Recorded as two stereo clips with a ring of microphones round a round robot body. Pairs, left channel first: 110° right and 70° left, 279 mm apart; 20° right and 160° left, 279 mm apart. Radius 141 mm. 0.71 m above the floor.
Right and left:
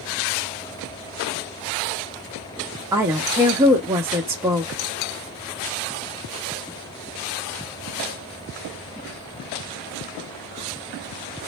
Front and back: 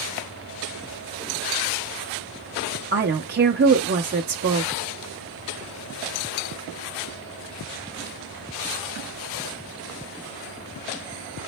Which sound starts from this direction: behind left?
A woman speaking, at 2.9 s.